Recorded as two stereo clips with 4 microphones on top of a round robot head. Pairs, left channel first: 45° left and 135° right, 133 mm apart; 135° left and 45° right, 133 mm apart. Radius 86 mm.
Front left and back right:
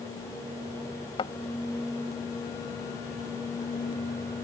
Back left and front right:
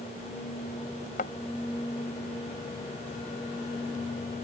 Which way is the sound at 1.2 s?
100° left.